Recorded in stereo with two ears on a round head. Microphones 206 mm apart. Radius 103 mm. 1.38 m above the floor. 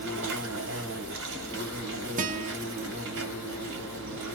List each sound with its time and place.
0.0 s an insect: 55° right (ahead or behind), 0.8 m
2.2 s a guitar: 35° right (ahead or behind), 0.5 m